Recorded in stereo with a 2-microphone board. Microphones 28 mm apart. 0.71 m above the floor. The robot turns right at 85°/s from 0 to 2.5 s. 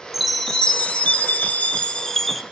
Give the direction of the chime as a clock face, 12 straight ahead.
12 o'clock.